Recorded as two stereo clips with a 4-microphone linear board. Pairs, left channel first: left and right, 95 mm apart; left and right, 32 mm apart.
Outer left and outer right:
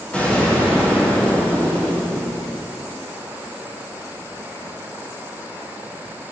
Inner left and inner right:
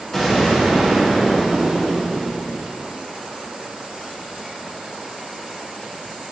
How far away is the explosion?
About 3.5 m.